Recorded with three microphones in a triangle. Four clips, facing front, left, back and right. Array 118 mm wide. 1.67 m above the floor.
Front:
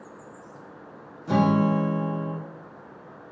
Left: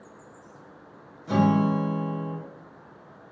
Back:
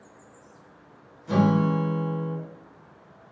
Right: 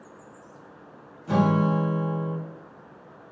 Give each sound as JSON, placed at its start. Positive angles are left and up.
{"t": 1.3, "sound": "a guitar", "azimuth_deg": -10, "distance_m": 1.0}